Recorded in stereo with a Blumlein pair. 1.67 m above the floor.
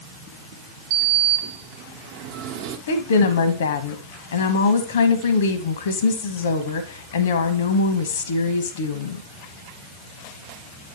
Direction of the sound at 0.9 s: 45° right.